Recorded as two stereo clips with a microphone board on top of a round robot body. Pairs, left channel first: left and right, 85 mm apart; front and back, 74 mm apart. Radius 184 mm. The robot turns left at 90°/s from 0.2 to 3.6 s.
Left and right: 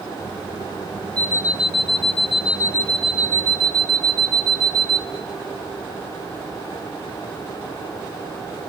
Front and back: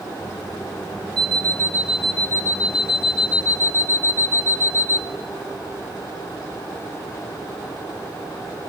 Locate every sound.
1.2 s an alarm clock: 165° left, 0.8 m; by 5.0 s 50° right, 0.8 m